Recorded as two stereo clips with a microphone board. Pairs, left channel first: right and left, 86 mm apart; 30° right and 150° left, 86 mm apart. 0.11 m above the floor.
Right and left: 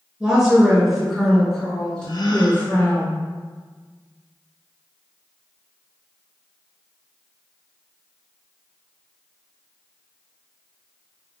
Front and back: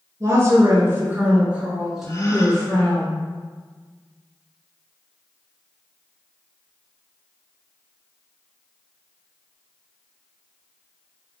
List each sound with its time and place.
0.2 s a woman speaking: 165° left, 1.8 m; by 3.0 s 65° right, 1.6 m
2.0 s a gasp: 80° right, 0.6 m